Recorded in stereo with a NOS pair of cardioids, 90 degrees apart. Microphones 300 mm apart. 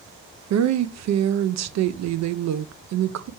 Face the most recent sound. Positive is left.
turn(degrees=-65)